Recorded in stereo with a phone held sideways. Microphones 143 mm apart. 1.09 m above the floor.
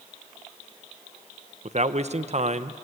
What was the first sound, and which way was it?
A man speaking, 50° right (ahead or behind).